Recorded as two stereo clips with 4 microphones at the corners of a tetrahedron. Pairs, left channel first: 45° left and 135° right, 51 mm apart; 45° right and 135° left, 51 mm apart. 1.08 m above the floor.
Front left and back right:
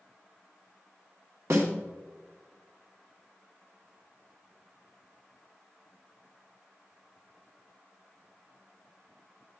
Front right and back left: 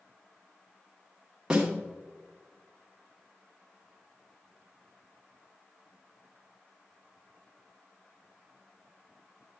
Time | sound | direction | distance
1.5 | a snare drum | 150° right | 2.0 m